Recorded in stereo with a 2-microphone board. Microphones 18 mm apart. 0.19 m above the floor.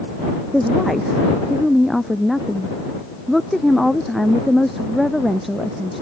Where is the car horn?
No car horn in this recording.